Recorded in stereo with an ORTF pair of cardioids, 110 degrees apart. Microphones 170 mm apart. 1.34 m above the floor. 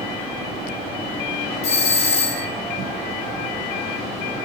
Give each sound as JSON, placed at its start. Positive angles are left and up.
{"t": 1.6, "sound": "a doorbell", "azimuth_deg": 40, "distance_m": 1.4}